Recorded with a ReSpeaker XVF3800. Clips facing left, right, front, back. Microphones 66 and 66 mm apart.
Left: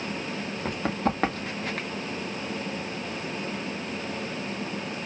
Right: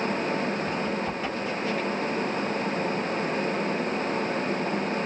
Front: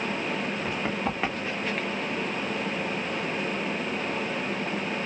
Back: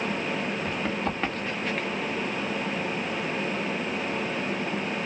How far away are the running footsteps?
About 1.6 m.